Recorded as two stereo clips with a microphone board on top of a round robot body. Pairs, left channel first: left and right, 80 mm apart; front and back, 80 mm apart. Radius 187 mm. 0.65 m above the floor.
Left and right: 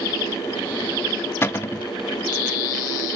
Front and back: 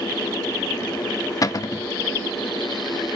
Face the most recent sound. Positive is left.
turn(degrees=35)